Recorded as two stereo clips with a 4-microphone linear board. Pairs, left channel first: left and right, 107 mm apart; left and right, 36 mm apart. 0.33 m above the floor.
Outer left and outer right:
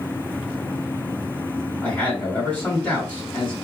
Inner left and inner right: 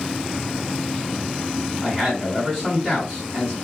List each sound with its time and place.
1.8 s a man speaking: 15° left (ahead or behind), 2 m